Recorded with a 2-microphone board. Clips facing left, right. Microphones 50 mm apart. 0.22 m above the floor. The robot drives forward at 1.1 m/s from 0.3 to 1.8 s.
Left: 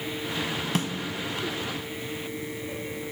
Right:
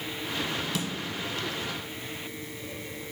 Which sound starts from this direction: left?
A snare drum, at 0.8 s.